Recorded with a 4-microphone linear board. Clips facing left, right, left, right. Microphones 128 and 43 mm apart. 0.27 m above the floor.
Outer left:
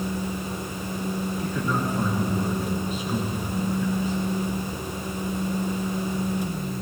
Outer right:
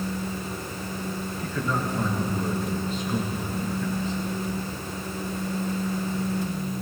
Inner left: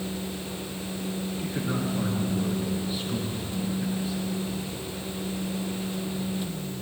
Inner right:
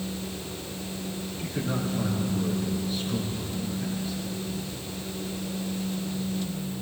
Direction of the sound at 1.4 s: 10° left (ahead or behind).